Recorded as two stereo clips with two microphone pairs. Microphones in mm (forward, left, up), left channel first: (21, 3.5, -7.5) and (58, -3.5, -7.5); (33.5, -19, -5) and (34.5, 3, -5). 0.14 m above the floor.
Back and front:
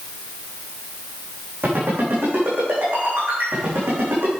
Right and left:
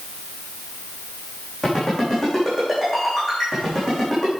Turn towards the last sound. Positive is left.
turn(degrees=5)